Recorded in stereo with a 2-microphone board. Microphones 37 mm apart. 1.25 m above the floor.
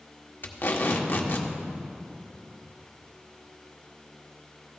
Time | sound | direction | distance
0.4 | tape being pulled | 60° left (ahead or behind) | 1.0 m